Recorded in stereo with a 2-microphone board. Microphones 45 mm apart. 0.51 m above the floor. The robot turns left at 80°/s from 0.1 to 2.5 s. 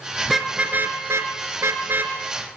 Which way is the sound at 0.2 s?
Centre (ahead or behind).